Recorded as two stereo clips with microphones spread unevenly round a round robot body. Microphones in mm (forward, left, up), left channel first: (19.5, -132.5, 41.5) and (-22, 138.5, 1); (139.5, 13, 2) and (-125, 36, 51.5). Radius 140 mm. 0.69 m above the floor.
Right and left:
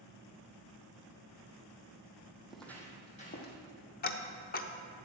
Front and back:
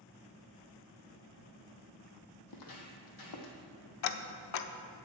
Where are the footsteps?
5° left, 1.5 m; by 3.6 s 35° right, 1.7 m.